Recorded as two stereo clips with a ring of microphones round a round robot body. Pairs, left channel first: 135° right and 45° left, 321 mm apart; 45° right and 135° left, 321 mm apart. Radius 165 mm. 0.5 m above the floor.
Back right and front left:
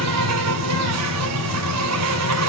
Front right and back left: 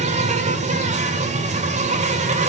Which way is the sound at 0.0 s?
70° left.